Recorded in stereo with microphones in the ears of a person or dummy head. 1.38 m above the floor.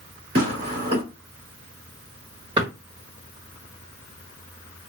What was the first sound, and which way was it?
Tearing paper, 35° right (ahead or behind).